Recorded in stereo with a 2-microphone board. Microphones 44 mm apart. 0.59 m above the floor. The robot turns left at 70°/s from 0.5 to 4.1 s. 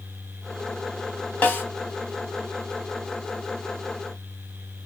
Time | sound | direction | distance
1.4 | a snare drum | 35° left (ahead or behind) | 2.5 m